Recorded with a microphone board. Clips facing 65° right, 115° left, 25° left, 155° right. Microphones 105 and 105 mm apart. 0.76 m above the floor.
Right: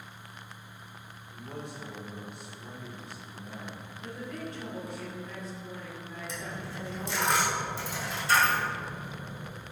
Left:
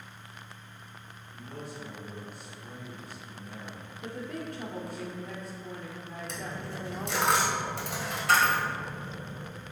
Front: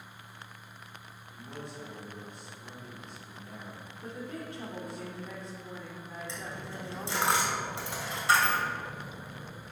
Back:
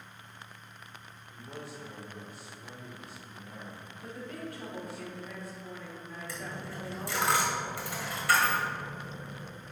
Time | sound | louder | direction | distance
1.3 | a man speaking | right 1 dB, even | 75° right | 2.5 m
4.0 | a woman speaking | left 2 dB, front 1 dB | 85° left | 2.5 m
6.3 | a dropped coin | left 1 dB, back 3 dB | 90° left | 2.0 m